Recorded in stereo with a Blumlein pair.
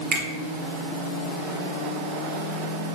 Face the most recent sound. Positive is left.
turn(degrees=-20)